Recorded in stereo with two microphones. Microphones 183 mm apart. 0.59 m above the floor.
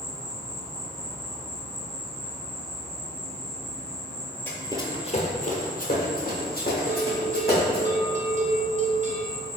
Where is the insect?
45° right (ahead or behind), 1.0 m.